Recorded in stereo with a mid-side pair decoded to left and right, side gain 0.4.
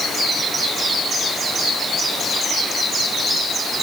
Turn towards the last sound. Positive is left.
No sound to turn to.